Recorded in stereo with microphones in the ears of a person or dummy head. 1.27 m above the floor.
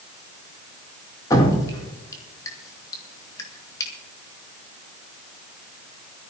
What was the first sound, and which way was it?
Dripping, 20° left (ahead or behind).